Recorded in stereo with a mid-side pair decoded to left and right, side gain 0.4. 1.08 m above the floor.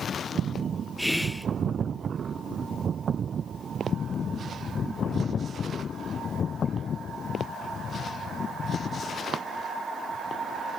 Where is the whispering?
5° left, 0.6 m.